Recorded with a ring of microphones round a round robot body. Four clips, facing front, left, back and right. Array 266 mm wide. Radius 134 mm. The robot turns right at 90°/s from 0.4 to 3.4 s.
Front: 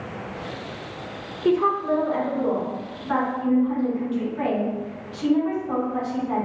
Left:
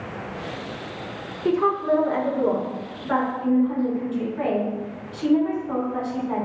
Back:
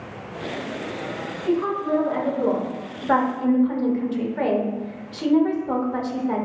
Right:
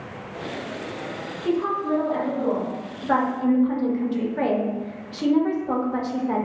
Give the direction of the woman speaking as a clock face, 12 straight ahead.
10 o'clock.